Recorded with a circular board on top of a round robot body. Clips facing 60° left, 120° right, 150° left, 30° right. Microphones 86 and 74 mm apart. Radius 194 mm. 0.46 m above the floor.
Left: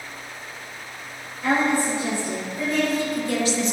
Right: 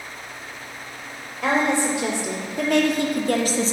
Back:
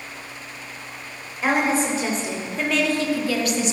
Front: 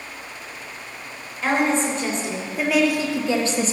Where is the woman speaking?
130° right, 3.5 m; by 3.7 s 70° right, 1.5 m.